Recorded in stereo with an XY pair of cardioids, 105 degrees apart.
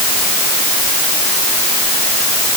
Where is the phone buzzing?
I don't hear a phone buzzing.